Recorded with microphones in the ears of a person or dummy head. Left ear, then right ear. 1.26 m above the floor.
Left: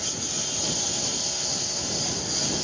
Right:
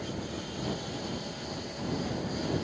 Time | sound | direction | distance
0.0 | a lawn mower | 85° left | ?